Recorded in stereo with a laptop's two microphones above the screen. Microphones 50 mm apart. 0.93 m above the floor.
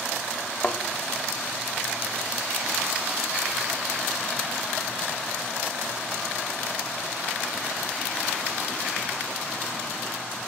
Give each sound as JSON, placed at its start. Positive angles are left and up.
{"t": 0.6, "sound": "a thud", "side_deg": 45, "distance_m": 0.9}